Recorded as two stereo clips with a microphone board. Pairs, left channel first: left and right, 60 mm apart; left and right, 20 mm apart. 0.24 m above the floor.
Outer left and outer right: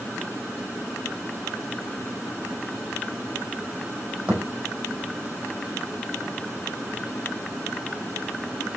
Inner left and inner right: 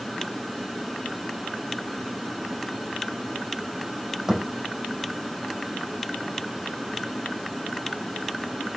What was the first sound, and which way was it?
A thud, 30° right (ahead or behind).